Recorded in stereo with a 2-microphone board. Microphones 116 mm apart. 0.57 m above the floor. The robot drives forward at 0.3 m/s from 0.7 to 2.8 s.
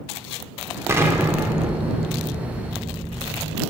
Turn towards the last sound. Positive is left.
turn(degrees=-15)  # may be behind; listen again after turning